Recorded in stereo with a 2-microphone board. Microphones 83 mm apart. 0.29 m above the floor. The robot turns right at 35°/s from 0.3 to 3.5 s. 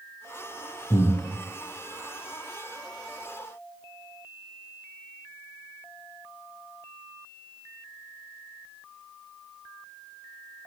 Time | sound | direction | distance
0.9 | breathing | 60° left (ahead or behind) | 3 m